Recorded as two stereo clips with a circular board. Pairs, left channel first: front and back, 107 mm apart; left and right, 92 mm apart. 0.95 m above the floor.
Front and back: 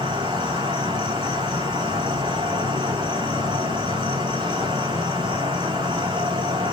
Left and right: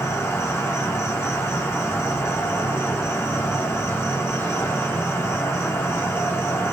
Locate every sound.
0.0 s an insect: 150° left, 4 m